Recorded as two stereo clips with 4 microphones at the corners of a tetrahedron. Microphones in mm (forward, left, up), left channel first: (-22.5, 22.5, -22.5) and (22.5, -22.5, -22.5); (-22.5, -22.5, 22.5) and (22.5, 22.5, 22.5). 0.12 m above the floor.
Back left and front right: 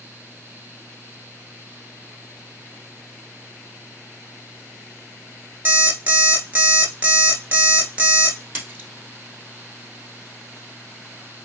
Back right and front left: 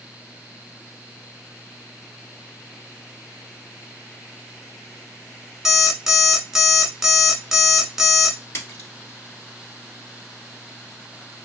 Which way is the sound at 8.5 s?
100° right.